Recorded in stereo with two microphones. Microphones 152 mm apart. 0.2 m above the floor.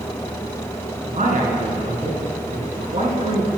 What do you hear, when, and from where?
1.0 s a man speaking: 60° right (ahead or behind), 1.8 m